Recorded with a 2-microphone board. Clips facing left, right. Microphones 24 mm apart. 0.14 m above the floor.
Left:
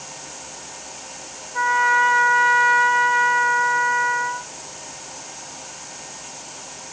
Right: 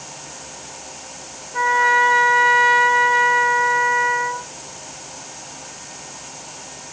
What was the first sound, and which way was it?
A trumpet, 25° right (ahead or behind).